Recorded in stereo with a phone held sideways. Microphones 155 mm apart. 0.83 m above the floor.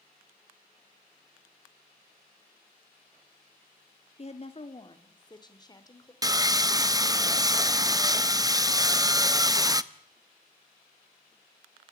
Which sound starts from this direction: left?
A woman speaking, at 4.2 s.